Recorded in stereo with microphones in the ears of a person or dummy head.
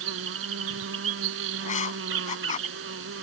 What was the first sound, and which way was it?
An insect, 60° right (ahead or behind).